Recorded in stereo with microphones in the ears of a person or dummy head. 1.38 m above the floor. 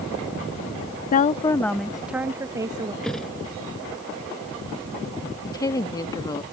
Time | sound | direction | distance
1.1 | a woman speaking | 50° left (ahead or behind) | ?
3.0 | a thud | centre (ahead or behind) | ?
5.4 | a woman speaking | 25° left (ahead or behind) | ?